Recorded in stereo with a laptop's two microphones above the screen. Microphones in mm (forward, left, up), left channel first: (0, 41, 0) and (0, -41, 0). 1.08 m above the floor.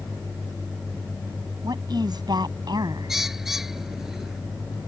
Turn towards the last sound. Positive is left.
turn(degrees=-5)  # may be behind; listen again after turning